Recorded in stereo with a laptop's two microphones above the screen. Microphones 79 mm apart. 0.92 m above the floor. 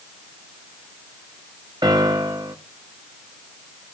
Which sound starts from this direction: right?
A piano, at 1.8 s.